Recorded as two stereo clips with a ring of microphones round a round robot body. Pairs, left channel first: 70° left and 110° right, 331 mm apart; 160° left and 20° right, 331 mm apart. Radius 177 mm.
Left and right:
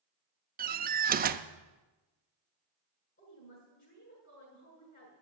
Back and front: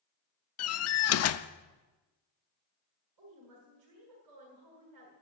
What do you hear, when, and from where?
0.6 s a door slam: 170° right, 0.6 m
3.2 s a woman speaking: 5° left, 6.5 m